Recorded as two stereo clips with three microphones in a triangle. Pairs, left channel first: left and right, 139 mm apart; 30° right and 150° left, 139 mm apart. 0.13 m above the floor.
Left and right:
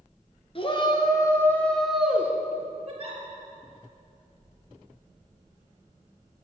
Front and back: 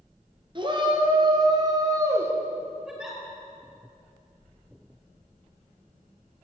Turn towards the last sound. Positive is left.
turn(degrees=-130)